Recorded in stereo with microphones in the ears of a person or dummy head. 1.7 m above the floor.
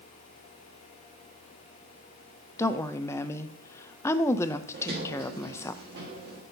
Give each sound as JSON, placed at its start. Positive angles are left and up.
{"t": 2.6, "sound": "a woman speaking", "side_deg": 10, "distance_m": 0.6}
{"t": 4.7, "sound": "a sliding door", "side_deg": -45, "distance_m": 1.8}